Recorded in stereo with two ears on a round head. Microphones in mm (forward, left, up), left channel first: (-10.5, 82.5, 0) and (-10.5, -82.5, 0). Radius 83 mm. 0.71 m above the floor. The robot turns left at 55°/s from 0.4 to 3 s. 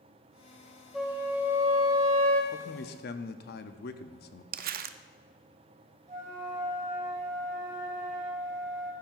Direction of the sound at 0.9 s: Straight ahead.